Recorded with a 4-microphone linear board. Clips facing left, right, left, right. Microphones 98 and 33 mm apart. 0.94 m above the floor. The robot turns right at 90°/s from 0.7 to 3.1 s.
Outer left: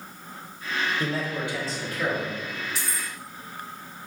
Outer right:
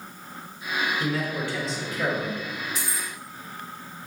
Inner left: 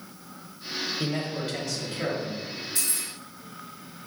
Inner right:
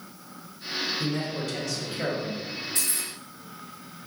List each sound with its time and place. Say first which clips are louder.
1.0 s a man speaking: outer right 1 dB, even; 115° left, 1.2 m; by 2.4 s 120° right, 1.2 m
2.8 s keys jangling: even, even; 45° right (ahead or behind), 1.0 m; by 3.1 s 20° right (ahead or behind), 1.0 m